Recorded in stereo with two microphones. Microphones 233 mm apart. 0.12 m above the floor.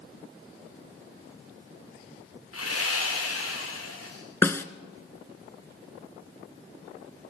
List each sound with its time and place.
2.5 s sawing: 75° left (ahead or behind), 6.5 m
4.4 s a snare drum: 10° left (ahead or behind), 0.8 m